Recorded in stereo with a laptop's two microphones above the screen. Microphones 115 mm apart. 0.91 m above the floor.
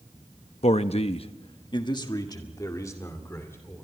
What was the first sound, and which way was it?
A man speaking, 65° left (ahead or behind).